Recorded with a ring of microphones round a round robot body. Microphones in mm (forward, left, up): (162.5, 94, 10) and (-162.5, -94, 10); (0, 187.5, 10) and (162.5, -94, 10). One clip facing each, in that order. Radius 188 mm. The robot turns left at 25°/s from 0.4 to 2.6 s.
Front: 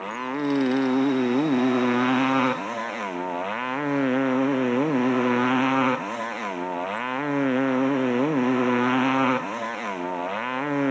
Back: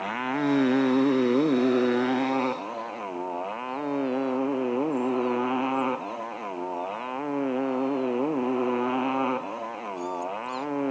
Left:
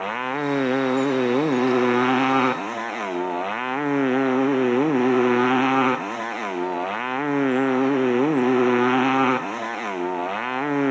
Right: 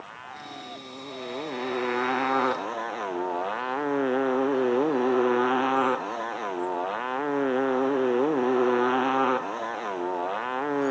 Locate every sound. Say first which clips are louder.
0.0 s a motorcycle: even, left 20 dB; 130° left; by 10.9 s 75° left